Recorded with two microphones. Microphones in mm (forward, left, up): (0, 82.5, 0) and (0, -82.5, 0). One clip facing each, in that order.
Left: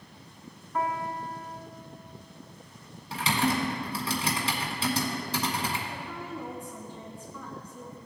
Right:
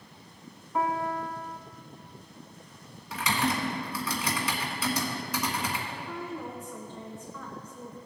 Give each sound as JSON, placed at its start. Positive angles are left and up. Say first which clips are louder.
{"t": 0.7, "sound": "a piano", "louder": "right 2 dB", "side_deg": -10, "distance_m": 0.8}
{"t": 3.1, "sound": "typing on a keyboard", "louder": "left 2 dB", "side_deg": 30, "distance_m": 1.6}
{"t": 5.9, "sound": "a woman speaking", "louder": "right 1 dB", "side_deg": 10, "distance_m": 1.5}